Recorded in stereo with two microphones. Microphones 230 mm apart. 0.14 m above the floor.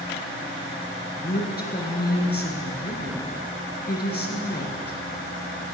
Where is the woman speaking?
45° left (ahead or behind), 2.5 m.